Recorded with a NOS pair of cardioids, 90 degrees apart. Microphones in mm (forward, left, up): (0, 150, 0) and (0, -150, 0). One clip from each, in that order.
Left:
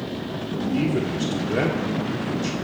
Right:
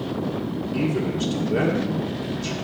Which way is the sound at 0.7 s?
10° left.